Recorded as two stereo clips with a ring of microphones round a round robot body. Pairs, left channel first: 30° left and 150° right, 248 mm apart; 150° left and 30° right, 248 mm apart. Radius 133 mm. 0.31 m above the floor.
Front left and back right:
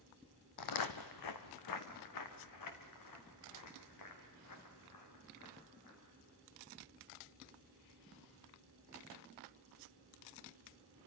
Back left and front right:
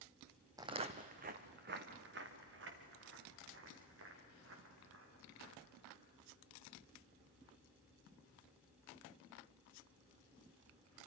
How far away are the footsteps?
About 1.0 m.